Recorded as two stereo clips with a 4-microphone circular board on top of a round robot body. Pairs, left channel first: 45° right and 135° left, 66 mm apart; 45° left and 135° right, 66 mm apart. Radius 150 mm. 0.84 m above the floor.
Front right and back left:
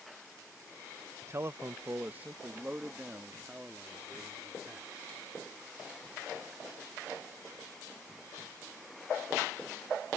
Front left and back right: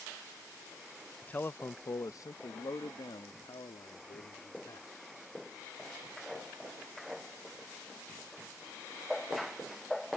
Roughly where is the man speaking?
Left.